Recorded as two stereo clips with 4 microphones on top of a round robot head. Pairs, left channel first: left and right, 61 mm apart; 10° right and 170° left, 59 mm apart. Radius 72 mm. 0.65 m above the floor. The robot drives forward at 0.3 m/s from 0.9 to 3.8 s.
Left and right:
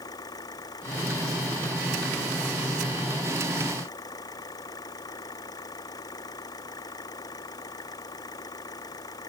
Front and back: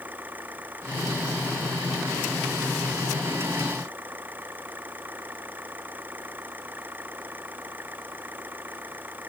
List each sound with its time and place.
0.0 s an engine running: 110° left